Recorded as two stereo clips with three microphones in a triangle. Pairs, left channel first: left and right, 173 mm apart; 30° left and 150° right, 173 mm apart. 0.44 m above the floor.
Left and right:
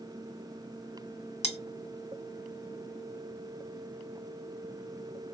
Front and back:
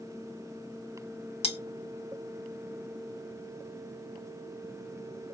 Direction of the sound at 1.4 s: 60° left.